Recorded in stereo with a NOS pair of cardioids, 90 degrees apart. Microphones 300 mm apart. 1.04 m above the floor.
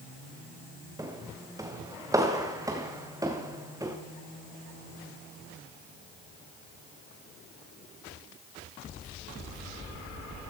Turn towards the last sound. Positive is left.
turn(degrees=-10)